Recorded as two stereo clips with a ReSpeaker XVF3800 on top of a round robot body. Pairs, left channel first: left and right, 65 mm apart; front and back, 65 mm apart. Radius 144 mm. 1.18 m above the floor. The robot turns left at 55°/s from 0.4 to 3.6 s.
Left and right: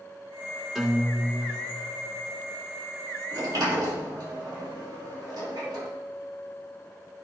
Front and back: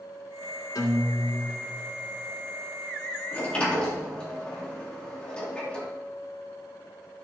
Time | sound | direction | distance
0.8 | a guitar | straight ahead | 1.9 m
3.3 | a sliding door | 60° right | 2.0 m